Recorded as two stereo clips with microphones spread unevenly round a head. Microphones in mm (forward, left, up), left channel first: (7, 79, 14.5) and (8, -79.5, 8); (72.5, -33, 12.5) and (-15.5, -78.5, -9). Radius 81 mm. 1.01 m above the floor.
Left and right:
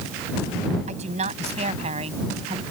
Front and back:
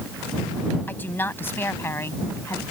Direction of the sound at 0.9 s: 40° right.